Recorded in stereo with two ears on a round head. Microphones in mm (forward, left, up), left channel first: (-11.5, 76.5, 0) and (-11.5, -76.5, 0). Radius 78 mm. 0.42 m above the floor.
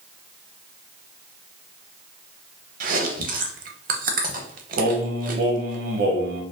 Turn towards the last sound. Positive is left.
turn(degrees=-55)  # may be behind; listen again after turning